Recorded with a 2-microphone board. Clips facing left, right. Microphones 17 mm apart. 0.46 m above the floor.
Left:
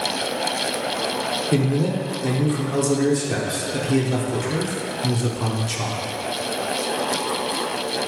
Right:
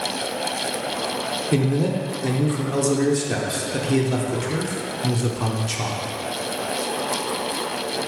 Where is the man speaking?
5° right (ahead or behind), 0.7 m.